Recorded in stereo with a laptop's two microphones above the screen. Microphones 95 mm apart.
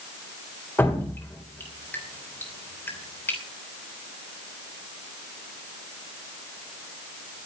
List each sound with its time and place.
0.8 s dripping: 25° left (ahead or behind), 3 m